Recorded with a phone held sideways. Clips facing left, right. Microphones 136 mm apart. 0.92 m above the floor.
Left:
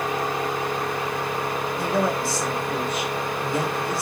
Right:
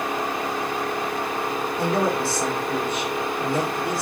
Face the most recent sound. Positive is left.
turn(degrees=-55)  # may be behind; listen again after turning